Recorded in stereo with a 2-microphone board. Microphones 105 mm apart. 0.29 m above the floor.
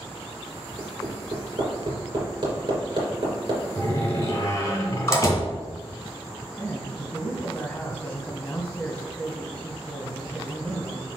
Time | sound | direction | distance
0.8 | hammering | 50° right (ahead or behind) | 3 m
3.8 | a door slam | 30° left (ahead or behind) | 2 m
6.6 | a man speaking | 10° left (ahead or behind) | 1.9 m